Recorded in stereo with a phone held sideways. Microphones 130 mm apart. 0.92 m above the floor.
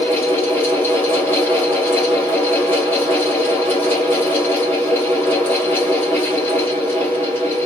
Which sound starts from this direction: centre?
A fan, at 0.0 s.